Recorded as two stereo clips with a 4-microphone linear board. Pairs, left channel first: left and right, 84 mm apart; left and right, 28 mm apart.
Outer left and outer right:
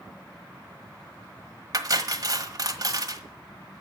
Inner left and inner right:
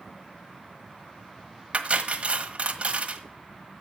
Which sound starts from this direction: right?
Cutlery clinking, at 1.7 s.